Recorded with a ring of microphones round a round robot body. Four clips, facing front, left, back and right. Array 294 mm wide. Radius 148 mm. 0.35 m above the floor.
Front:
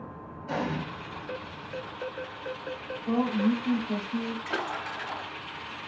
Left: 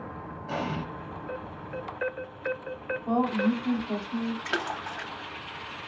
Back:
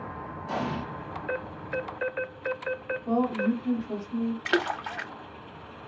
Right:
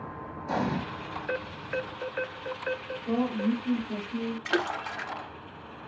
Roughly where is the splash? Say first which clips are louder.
Right 2 dB, back 5 dB; behind.